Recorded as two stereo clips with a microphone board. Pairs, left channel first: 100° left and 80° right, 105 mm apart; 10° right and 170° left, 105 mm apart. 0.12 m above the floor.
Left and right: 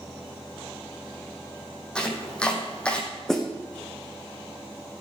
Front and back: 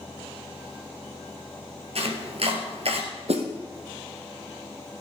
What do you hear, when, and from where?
1.9 s chopping: straight behind, 3 m
3.3 s a snare drum: 175° right, 2 m